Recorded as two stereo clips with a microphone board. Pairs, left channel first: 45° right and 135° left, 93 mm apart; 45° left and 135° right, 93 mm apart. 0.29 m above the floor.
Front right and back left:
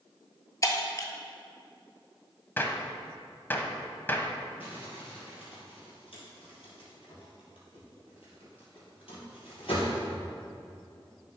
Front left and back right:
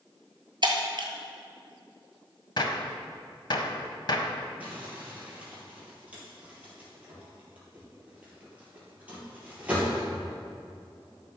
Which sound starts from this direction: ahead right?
Crumpling, at 4.6 s.